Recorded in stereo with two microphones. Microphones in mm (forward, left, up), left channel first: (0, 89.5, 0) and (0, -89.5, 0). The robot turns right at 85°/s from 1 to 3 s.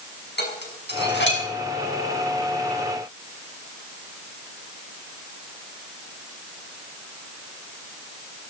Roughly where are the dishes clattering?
Left.